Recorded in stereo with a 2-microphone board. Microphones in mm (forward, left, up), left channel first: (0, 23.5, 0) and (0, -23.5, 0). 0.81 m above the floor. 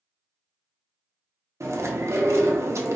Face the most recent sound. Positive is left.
turn(degrees=-70)  # may be behind; listen again after turning